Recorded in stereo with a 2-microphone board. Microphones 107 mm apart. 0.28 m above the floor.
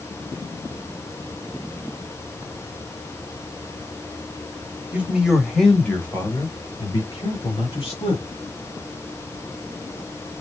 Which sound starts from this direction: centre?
A man speaking, at 4.9 s.